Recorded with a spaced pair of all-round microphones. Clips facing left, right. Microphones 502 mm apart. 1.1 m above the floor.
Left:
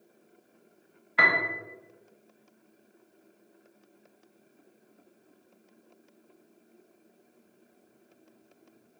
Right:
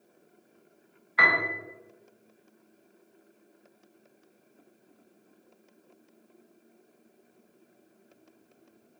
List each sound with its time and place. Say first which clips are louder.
1.2 s a piano: even; 50° left (ahead or behind), 0.6 m